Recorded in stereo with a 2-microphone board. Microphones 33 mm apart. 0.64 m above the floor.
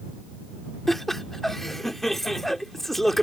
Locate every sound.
0.9 s laughter: 10° left (ahead or behind)